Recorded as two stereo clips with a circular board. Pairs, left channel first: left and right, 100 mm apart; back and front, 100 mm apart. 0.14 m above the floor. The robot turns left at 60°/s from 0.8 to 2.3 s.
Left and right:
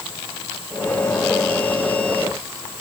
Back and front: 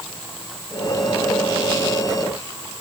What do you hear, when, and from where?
Only background noise.